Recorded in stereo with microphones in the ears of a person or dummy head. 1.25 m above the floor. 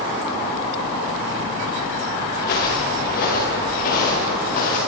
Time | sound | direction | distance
2.4 | footsteps | 50° left (ahead or behind) | 5.5 m